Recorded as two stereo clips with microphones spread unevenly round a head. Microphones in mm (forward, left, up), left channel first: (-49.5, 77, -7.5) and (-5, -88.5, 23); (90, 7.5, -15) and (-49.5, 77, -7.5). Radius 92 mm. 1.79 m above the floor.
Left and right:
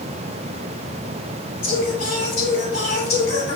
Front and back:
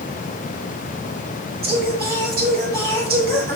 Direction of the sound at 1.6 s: 140° left.